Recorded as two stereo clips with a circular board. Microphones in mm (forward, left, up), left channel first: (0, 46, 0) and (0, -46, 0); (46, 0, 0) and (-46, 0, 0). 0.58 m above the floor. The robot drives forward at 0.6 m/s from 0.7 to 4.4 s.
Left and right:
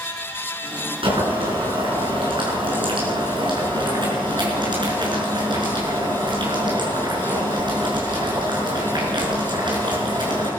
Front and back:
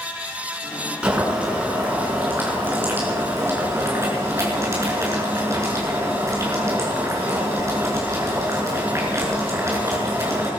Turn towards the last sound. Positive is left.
turn(degrees=-120)